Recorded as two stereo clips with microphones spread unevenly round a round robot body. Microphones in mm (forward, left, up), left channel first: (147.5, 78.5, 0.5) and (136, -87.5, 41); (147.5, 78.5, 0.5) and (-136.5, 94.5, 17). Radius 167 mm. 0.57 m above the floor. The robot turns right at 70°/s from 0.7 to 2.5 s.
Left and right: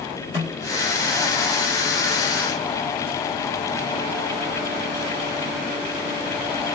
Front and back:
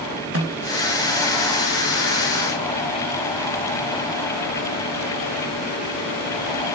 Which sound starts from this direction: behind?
A snare drum, at 0.3 s.